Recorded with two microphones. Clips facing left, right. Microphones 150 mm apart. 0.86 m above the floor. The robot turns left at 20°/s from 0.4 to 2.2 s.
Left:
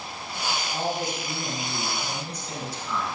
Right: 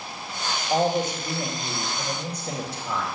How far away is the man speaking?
About 2.5 m.